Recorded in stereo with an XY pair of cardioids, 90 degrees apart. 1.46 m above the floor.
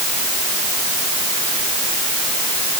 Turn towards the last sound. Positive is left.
No sound to turn to.